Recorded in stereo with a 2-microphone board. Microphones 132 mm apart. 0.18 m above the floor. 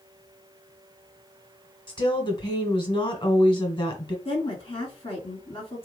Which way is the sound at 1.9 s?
40° left (ahead or behind).